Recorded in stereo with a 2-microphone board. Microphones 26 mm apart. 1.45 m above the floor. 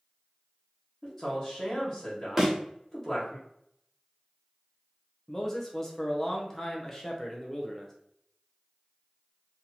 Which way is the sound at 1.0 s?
20° left (ahead or behind).